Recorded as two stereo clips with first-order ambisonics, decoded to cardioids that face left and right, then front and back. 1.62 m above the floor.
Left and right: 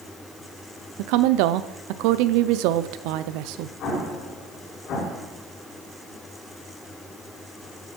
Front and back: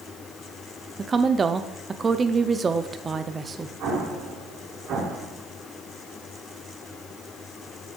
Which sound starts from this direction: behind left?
An explosion, at 3.8 s.